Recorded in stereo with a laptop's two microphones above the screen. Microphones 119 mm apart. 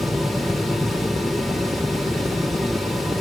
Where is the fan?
Centre (ahead or behind), 0.8 m.